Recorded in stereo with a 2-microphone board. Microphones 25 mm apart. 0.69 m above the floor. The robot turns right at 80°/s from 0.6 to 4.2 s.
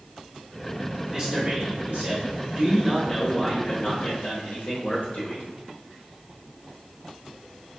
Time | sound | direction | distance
1.1 | a man speaking | 160° right | 1.3 m